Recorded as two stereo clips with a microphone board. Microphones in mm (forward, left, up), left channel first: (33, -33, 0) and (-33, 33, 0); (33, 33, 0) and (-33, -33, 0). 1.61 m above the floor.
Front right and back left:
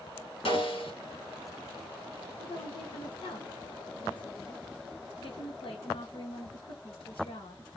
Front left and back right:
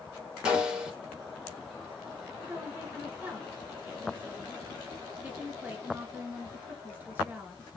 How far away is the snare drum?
About 3.5 m.